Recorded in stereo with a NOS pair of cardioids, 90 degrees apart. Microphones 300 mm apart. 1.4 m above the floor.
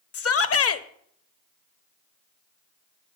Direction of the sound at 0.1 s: 50° left.